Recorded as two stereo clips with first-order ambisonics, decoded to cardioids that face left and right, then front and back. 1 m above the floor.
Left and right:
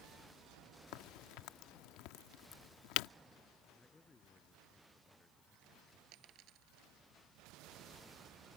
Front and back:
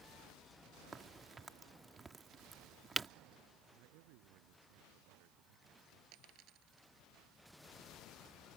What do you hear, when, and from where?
0.9 s a crack: 105° left
3.7 s a man speaking: 165° left
6.1 s a dropped coin: 135° right